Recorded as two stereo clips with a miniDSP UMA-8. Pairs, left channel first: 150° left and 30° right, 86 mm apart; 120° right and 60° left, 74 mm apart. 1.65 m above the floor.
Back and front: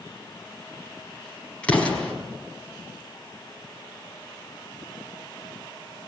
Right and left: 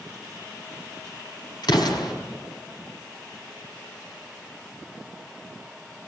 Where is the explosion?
135° right, 5 m.